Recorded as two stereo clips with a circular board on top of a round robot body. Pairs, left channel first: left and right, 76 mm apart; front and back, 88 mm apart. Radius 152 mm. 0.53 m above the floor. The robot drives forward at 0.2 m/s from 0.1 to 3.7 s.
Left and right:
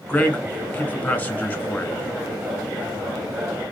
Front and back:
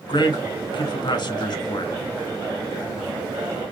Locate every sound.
0.1 s a man speaking: 20° left, 2 m; by 2.0 s 25° left, 1.7 m